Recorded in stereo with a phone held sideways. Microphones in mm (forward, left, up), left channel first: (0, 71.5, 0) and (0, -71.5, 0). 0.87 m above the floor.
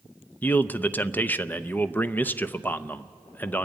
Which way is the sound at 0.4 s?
15° left (ahead or behind).